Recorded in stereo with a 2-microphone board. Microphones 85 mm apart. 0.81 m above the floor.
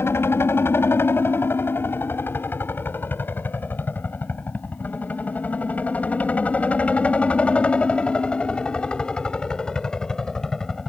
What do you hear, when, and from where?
0.0 s a helicopter: 30° left (ahead or behind); by 10.9 s 5° left (ahead or behind)